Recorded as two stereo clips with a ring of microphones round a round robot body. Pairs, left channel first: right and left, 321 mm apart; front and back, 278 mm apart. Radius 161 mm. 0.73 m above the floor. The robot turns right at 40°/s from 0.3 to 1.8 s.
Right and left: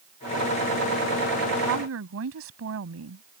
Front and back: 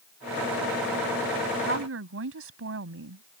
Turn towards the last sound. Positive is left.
turn(degrees=140)